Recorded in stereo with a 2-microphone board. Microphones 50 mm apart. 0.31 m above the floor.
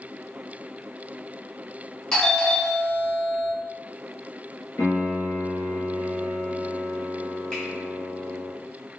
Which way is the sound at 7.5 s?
20° left (ahead or behind).